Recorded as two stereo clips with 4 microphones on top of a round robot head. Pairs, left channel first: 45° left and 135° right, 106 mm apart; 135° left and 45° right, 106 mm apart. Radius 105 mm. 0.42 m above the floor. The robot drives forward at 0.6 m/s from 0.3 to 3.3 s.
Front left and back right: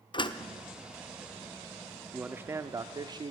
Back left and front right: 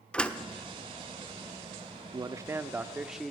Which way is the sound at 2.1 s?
65° right.